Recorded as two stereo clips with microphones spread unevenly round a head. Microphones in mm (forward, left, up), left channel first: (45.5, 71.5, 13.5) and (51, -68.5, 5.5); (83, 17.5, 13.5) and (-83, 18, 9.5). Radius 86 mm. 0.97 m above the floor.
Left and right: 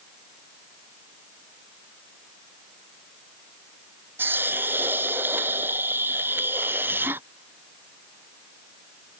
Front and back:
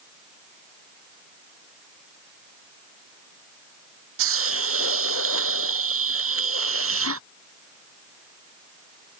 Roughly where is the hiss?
Behind.